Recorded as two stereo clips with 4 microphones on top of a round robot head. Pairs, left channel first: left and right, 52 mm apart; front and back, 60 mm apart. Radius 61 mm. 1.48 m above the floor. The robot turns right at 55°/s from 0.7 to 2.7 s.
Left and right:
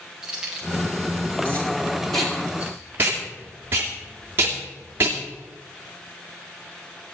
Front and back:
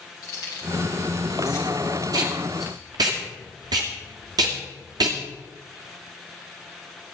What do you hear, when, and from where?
0.2 s keys jangling: 15° right, 8 m; by 2.8 s 95° left, 8 m
2.1 s tape being pulled: 175° left, 2 m; by 5.2 s 150° right, 2 m